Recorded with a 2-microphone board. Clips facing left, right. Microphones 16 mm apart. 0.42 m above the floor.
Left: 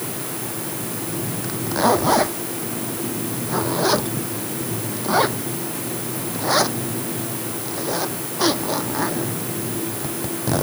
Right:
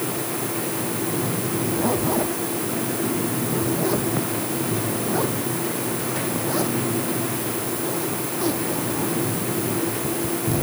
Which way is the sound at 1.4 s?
55° left (ahead or behind).